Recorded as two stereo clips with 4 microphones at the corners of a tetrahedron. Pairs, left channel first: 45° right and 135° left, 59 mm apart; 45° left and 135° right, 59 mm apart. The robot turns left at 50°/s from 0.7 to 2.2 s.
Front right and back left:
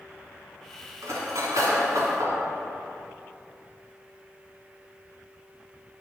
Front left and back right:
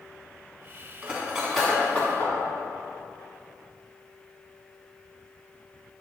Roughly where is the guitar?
No guitar in this recording.